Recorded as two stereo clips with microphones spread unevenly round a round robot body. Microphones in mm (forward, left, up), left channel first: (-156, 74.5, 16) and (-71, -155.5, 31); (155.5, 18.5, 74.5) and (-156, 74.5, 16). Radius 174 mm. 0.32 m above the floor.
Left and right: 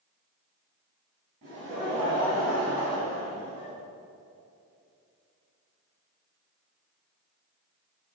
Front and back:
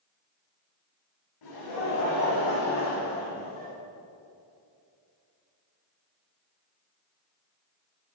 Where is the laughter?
5° right, 2.5 m; by 3.7 s 60° left, 1.7 m.